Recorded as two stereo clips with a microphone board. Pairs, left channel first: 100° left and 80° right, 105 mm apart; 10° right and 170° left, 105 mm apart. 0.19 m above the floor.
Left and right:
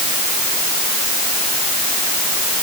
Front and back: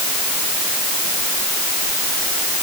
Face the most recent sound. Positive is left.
No sound to turn to.